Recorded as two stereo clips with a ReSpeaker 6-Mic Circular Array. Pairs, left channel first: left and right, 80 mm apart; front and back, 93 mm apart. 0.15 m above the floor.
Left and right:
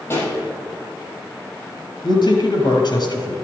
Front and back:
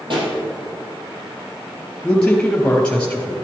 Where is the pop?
150° left, 3.5 m.